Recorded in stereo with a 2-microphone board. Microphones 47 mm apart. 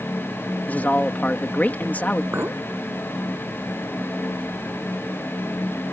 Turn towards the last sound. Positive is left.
turn(degrees=-55)  # may be behind; listen again after turning